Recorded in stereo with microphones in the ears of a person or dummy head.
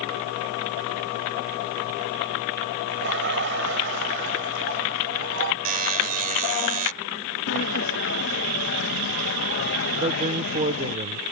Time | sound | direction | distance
2.9 | laughter | 55° right (ahead or behind) | ?
5.7 | a buzzer | 40° right (ahead or behind) | ?
7.5 | a sliding door | 65° left (ahead or behind) | ?
10.0 | a man speaking | 30° right (ahead or behind) | ?